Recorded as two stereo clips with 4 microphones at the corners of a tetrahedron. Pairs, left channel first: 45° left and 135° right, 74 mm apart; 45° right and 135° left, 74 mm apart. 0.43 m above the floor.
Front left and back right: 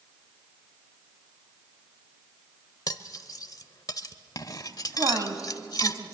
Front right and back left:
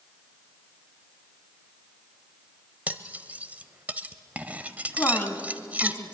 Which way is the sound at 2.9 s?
70° left.